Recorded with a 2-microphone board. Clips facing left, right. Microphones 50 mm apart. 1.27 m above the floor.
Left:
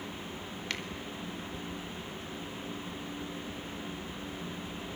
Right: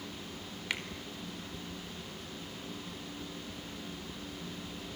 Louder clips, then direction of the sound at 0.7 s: Right 1 dB; 15° right (ahead or behind).